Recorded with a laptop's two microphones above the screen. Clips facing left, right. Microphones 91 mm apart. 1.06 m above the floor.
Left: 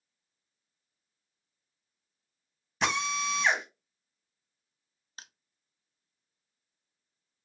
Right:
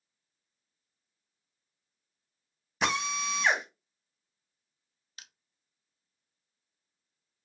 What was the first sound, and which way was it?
A drill, 5° right (ahead or behind).